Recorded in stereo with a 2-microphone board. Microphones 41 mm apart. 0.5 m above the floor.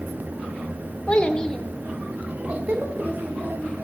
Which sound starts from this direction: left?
A child speaking, at 1.1 s.